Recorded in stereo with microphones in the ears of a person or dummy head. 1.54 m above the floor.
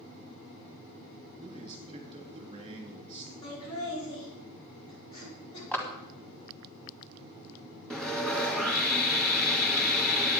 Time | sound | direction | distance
1.4 | a man speaking | 25° right (ahead or behind) | 3 m
3.4 | laughter | 30° left (ahead or behind) | 5 m
5.7 | a clap | 5° left (ahead or behind) | 1.6 m
7.9 | sawing | 5° left (ahead or behind) | 1.8 m